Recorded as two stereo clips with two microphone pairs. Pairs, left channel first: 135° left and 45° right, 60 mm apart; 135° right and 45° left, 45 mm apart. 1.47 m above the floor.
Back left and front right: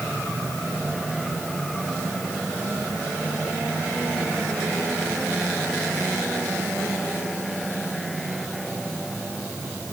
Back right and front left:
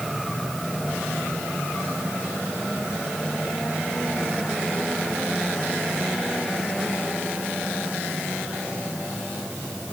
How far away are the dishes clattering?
No dishes clattering in this recording.